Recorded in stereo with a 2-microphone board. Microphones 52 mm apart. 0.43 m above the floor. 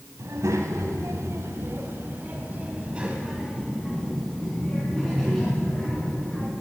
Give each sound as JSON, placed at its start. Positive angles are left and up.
{"t": 0.2, "sound": "a child speaking", "side_deg": -75, "distance_m": 1.8}